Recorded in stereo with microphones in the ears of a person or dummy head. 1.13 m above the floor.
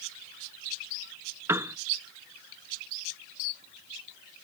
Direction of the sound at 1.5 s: 15° right (ahead or behind).